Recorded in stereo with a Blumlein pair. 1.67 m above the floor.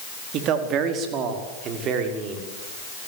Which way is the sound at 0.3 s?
35° right.